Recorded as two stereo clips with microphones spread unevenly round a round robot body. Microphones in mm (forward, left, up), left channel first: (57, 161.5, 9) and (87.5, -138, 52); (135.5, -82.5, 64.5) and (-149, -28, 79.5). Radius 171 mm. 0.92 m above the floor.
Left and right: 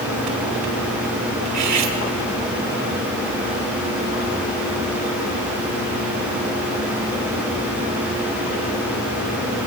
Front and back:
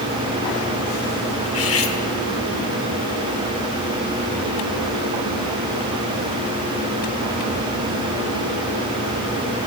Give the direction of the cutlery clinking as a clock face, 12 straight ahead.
2 o'clock.